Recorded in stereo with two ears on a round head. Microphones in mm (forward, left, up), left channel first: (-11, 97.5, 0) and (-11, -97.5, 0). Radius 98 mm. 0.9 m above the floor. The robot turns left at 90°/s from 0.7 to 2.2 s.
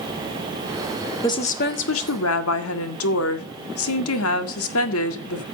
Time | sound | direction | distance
1.2 | a woman speaking | 165° left | 1.9 m